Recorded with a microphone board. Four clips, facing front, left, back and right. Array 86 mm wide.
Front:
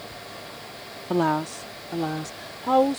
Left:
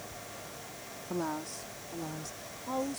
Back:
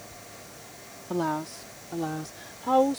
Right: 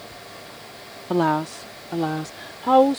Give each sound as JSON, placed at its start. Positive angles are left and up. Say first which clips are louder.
{"t": 1.1, "sound": "a woman speaking", "louder": "right 14 dB, front 6 dB", "azimuth_deg": -65}